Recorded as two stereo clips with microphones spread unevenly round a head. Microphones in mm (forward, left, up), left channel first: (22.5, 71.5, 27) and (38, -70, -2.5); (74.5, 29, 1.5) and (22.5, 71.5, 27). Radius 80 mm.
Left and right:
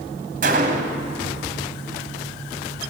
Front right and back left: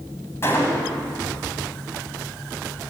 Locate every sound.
0.4 s a gunshot: 125° right, 1.7 m